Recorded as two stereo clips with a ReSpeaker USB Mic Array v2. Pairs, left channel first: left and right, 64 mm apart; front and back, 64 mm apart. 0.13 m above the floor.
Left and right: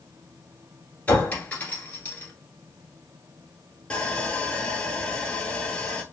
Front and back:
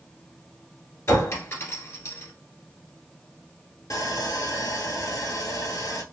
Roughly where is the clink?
Ahead left.